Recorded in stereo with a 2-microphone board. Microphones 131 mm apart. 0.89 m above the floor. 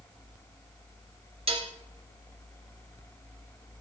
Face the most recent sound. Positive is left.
turn(degrees=-45)  # may be behind; listen again after turning